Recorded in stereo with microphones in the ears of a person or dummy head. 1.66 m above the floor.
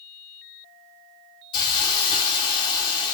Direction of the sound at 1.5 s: 25° left (ahead or behind).